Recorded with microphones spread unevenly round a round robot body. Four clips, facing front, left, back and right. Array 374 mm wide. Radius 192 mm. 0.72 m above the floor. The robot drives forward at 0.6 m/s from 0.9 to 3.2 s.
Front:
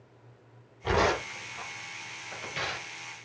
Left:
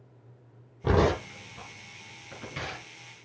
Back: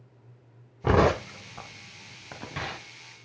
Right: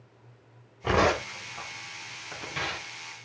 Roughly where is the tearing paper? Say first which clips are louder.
Even, back 4 dB; behind left.